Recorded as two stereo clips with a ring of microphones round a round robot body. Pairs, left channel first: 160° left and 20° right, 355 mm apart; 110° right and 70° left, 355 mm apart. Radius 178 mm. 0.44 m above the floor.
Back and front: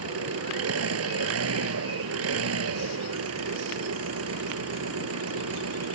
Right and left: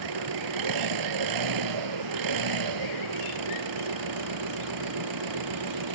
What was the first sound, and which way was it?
An engine running, 30° left.